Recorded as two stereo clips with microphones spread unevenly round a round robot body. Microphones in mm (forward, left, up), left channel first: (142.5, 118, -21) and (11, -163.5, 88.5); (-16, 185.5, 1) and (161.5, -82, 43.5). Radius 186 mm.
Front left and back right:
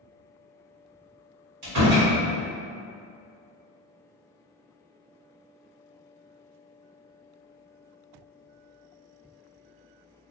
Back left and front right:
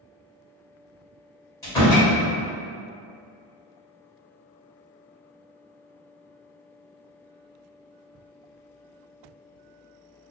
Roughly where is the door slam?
Behind.